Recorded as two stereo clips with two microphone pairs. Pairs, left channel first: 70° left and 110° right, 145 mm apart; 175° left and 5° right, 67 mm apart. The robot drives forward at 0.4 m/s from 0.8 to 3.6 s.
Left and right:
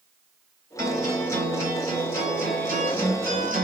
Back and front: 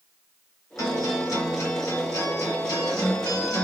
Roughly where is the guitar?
Behind left.